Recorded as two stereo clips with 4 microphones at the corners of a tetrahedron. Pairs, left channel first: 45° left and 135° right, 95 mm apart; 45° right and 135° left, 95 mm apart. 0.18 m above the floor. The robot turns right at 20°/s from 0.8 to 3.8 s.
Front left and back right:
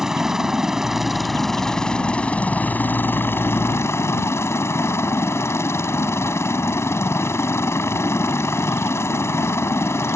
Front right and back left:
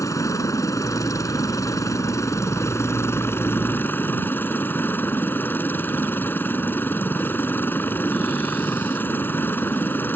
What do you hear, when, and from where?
0.0 s a helicopter: 55° right; by 10.2 s 5° left